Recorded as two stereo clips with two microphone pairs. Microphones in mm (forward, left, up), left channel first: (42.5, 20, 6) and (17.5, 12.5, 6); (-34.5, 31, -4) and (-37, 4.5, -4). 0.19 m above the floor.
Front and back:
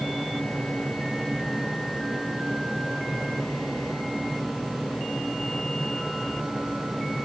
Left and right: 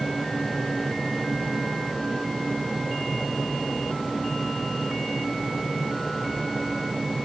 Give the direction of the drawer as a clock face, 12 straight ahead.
I don't hear a drawer.